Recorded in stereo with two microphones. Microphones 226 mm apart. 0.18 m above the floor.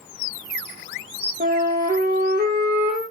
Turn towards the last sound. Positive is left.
turn(degrees=-40)  # may be behind; listen again after turning